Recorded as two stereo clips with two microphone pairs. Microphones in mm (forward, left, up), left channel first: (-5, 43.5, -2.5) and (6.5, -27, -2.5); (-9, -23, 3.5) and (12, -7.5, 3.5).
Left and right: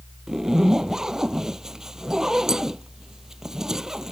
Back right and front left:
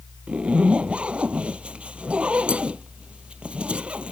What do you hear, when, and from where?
0.3 s a zipper: 5° left